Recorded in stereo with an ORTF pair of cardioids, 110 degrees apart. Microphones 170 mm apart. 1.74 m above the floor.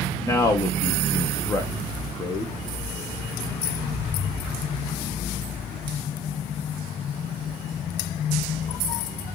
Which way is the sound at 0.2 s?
20° left.